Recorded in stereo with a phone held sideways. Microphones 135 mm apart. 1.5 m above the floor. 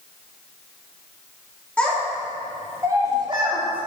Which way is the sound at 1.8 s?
10° left (ahead or behind).